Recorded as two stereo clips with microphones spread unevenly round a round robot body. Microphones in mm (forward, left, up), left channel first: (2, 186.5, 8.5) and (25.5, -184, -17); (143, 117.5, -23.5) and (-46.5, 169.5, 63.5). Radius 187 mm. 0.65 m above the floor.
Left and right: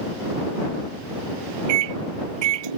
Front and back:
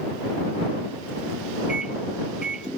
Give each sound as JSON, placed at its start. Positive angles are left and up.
{"t": 1.7, "sound": "a microwave", "azimuth_deg": -110}